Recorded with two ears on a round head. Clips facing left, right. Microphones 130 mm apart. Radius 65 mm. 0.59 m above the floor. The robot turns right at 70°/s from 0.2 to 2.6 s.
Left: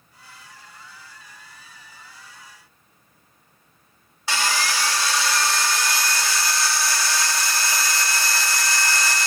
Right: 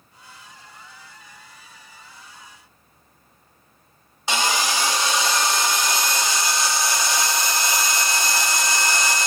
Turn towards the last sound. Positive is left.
turn(degrees=-20)  # may be behind; listen again after turning